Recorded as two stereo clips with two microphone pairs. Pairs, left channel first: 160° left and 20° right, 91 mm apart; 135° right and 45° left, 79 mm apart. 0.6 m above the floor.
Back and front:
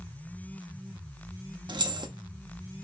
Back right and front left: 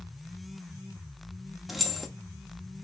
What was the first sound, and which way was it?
Keys jangling, 50° right.